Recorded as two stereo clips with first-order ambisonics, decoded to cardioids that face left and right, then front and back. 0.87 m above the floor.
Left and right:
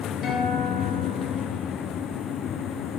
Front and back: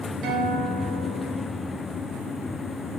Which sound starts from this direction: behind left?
A guitar, at 0.2 s.